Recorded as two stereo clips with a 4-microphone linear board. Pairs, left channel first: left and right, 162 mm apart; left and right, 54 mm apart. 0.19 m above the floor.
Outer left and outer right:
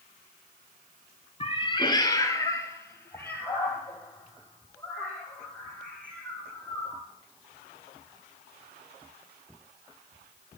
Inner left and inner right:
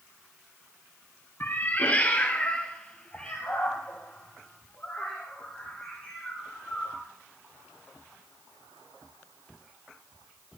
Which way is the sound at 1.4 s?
35° left (ahead or behind).